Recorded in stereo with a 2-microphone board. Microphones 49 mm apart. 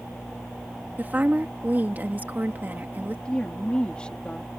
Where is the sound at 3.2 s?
20° left (ahead or behind).